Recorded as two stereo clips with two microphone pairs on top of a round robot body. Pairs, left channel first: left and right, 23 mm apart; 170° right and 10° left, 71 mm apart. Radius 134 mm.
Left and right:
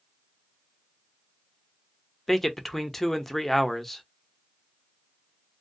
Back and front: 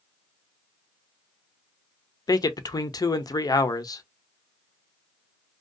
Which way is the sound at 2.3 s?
165° left.